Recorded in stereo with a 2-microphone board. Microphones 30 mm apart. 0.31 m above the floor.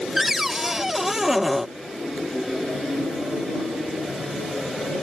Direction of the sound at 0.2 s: 10° right (ahead or behind).